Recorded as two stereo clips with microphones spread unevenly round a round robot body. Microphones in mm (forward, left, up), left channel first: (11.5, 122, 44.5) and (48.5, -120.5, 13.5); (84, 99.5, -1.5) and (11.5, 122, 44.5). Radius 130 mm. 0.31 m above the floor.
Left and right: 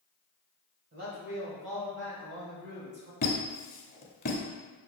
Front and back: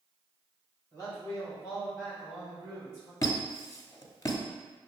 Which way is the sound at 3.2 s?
40° left.